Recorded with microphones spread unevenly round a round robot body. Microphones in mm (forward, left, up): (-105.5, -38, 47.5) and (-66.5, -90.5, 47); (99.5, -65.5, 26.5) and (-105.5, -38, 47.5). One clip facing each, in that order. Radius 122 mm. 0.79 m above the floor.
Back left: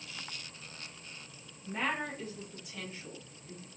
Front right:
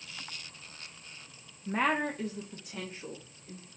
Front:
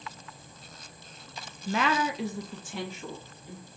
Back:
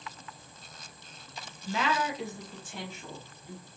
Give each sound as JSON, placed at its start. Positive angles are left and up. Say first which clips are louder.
{"t": 1.7, "sound": "a woman speaking", "louder": "front right 5 dB, front 3 dB", "azimuth_deg": -35, "distance_m": 0.7}